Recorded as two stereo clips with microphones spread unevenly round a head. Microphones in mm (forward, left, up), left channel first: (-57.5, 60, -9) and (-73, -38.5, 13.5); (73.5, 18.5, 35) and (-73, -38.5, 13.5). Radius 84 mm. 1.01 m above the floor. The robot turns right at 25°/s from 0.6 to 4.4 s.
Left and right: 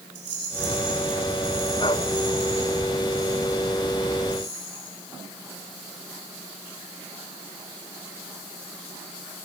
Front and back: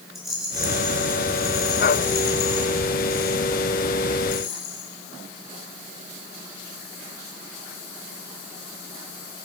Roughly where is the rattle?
Right.